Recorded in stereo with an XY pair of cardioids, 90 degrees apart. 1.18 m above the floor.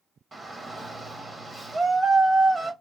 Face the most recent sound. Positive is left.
turn(degrees=-35)